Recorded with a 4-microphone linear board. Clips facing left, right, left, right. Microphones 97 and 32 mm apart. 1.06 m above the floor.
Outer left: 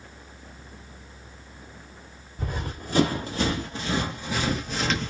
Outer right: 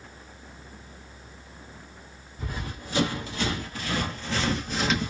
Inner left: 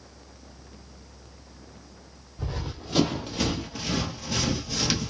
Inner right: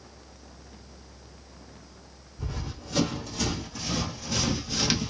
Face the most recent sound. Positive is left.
turn(degrees=-10)  # may be behind; listen again after turning